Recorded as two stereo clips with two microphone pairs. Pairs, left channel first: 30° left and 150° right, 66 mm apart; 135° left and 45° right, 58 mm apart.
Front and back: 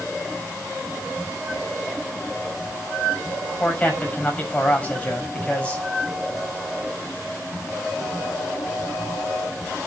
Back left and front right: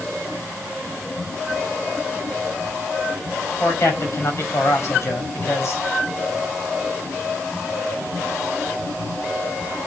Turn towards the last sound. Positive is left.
turn(degrees=100)